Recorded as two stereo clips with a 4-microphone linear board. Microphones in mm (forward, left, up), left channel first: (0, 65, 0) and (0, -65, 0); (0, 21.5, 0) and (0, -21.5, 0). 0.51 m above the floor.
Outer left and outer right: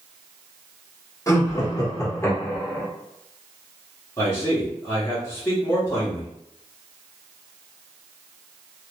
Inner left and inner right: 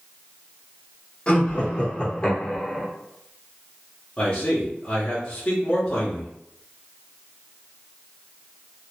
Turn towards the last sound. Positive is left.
turn(degrees=20)  # may be behind; listen again after turning